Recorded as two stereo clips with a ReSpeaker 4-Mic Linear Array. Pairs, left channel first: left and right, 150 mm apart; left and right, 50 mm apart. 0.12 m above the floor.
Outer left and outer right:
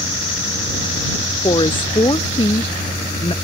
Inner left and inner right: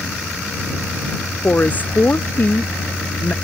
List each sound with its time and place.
1.4 s a woman speaking: 35° left (ahead or behind)